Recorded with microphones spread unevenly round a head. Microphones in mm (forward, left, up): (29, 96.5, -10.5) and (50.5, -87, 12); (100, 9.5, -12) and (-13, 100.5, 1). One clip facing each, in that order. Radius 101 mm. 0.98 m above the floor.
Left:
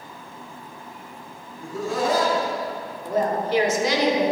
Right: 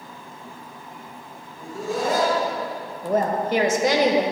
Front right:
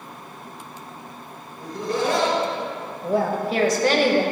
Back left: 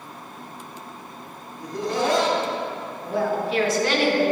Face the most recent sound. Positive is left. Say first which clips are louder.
# right 1 dB, front right 2 dB
turn(degrees=-60)